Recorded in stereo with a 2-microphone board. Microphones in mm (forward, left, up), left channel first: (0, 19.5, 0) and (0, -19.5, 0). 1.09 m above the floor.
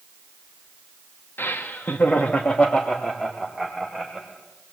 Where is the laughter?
75° left (ahead or behind), 1.9 m; by 4.3 s centre (ahead or behind), 4 m.